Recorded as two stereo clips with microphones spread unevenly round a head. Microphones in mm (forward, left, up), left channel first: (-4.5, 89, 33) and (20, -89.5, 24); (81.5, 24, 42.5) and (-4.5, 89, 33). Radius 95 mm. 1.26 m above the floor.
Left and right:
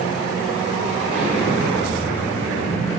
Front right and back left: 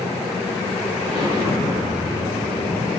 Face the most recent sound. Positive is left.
turn(degrees=-30)